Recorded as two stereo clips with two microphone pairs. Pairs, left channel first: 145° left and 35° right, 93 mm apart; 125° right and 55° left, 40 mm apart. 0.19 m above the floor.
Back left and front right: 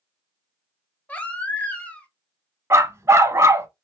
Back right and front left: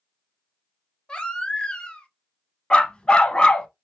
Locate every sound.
1.1 s a baby crying: 160° right, 0.8 m
2.7 s a dog barking: 70° right, 0.6 m